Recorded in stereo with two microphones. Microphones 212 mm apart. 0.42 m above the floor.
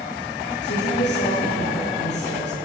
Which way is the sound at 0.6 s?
55° left (ahead or behind).